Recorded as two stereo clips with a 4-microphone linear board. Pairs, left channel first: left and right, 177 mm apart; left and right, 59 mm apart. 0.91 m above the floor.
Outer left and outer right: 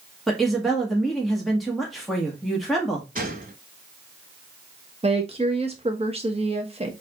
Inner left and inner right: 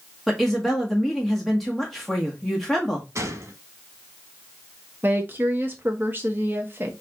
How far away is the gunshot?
About 1.2 m.